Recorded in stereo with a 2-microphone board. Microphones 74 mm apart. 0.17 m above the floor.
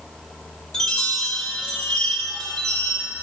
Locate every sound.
0.7 s a chime: 10° left (ahead or behind), 5 m